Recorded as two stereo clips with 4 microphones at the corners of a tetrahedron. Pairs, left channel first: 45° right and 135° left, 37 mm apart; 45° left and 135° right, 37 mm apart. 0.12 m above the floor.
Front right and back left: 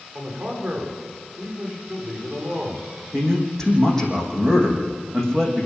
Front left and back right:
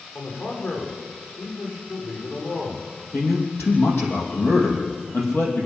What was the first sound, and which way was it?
A man speaking, 60° left.